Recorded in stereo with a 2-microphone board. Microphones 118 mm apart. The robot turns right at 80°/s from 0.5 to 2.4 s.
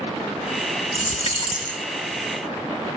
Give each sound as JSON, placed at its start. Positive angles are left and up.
{"t": 0.9, "sound": "a dropped coin", "azimuth_deg": 80, "distance_m": 0.6}